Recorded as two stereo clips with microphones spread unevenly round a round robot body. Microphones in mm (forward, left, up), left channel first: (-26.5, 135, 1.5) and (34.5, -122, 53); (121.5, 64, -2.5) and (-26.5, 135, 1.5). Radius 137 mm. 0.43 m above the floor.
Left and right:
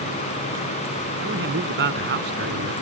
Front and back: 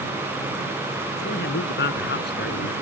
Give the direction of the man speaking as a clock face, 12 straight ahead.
1 o'clock.